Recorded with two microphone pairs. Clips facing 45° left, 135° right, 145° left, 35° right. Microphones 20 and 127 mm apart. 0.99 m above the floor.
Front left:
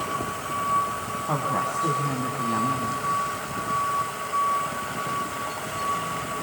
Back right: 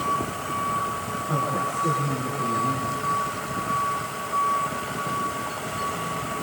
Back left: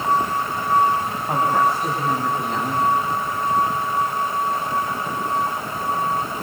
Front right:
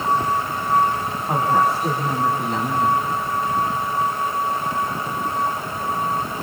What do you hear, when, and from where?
1.3 s a woman speaking: 50° left, 6 m